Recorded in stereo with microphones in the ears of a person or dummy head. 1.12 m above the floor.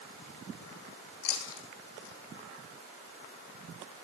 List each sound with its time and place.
1.2 s chewing: 75° left (ahead or behind), 2.5 m